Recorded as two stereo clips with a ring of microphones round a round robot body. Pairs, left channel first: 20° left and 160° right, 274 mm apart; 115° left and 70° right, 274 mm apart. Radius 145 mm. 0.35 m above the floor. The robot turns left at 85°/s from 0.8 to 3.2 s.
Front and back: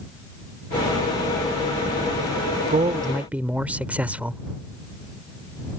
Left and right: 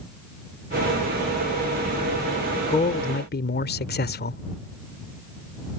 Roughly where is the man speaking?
Behind.